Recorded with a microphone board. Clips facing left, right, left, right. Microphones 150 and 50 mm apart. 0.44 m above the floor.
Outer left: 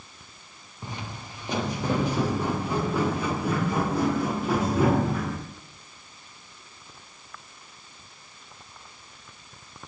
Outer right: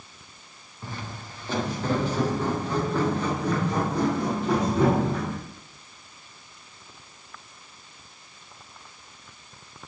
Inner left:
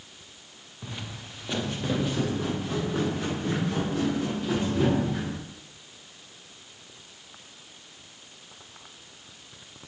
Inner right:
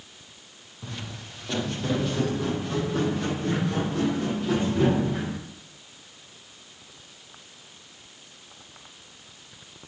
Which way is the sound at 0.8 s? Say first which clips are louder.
Even, inner right 1 dB; 15° left (ahead or behind).